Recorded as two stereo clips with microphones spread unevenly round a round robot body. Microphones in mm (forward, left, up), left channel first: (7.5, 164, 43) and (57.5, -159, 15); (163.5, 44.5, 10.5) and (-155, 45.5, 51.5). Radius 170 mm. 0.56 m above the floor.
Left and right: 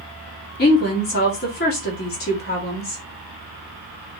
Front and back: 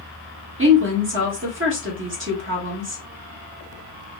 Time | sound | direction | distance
0.6 | a woman speaking | 145° left | 1.2 m